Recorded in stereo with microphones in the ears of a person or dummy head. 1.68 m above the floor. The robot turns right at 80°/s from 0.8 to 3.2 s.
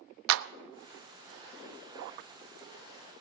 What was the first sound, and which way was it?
A clap, 75° right (ahead or behind).